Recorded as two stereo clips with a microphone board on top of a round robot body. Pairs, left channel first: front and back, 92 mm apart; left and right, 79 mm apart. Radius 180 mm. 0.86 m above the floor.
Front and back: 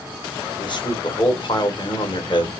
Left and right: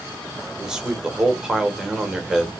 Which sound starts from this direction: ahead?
A man speaking, at 0.6 s.